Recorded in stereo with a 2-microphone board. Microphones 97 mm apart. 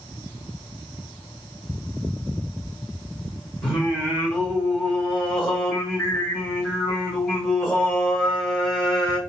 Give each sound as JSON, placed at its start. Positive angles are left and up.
{"t": 3.6, "sound": "singing", "side_deg": -5, "distance_m": 1.7}